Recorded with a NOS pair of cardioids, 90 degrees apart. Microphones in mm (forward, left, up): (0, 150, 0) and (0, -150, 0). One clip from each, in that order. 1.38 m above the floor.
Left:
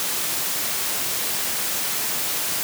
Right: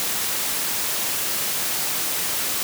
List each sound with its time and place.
Only background noise.